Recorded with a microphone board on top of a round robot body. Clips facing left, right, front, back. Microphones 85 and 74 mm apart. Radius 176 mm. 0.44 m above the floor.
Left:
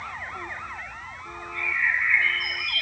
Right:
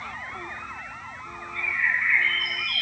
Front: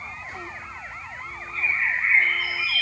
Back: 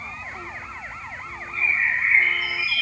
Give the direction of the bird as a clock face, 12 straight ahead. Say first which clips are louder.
Even, back 2 dB; 12 o'clock.